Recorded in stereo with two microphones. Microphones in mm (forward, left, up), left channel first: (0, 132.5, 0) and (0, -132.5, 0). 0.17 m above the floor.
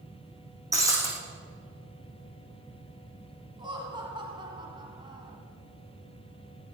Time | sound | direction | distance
0.7 | breaking glass | 10° right (ahead or behind) | 4 m
3.6 | laughter | 15° right (ahead or behind) | 1.5 m